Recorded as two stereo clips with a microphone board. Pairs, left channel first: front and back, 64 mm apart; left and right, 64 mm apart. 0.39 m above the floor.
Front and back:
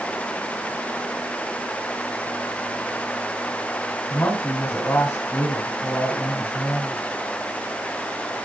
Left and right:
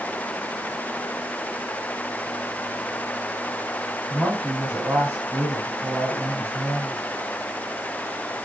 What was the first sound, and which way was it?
A woman speaking, 35° right.